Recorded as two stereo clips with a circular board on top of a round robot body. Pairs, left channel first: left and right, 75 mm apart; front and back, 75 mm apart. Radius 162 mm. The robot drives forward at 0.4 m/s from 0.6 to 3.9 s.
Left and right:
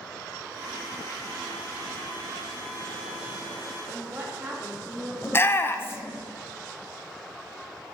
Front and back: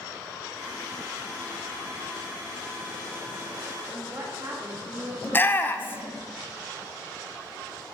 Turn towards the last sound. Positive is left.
turn(degrees=50)